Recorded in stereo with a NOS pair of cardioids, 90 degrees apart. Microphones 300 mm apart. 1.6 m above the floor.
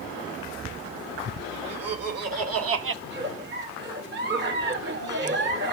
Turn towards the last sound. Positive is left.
turn(degrees=-40)